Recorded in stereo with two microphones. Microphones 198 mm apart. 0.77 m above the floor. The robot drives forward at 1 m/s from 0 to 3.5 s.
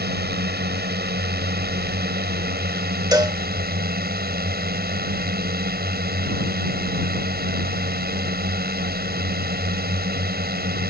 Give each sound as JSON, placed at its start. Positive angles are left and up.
{"t": 0.0, "sound": "a drone", "side_deg": -55}
{"t": 3.1, "sound": "a cowbell", "side_deg": -20}